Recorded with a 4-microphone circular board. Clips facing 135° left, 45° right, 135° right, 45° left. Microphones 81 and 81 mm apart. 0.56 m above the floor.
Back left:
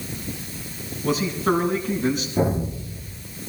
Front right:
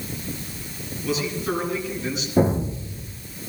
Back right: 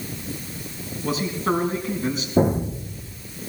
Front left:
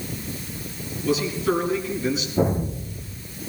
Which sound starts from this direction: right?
An explosion, at 2.4 s.